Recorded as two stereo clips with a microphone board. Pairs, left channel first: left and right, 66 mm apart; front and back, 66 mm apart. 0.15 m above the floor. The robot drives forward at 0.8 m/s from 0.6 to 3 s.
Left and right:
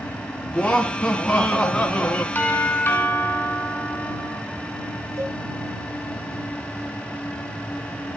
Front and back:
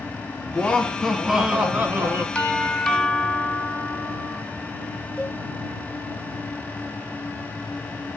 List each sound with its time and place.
0.5 s laughter: 25° left, 1.2 m; by 2.2 s 165° left, 1.4 m
2.4 s a doorbell: 70° left, 2.5 m; by 4.4 s 95° left, 2.5 m
5.2 s a cowbell: 105° right, 6 m